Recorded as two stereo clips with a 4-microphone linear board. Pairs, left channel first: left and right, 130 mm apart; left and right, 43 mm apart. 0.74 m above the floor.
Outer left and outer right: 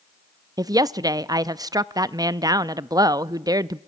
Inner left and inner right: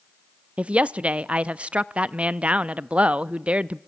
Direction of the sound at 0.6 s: 30° right (ahead or behind).